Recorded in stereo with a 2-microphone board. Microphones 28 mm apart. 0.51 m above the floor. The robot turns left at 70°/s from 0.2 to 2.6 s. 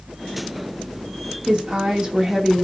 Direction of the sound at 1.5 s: 80° right.